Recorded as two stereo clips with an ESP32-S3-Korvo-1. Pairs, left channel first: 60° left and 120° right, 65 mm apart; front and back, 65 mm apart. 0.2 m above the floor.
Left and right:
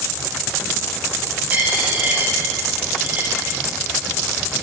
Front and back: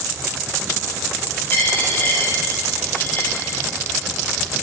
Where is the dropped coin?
55° right, 2.5 m.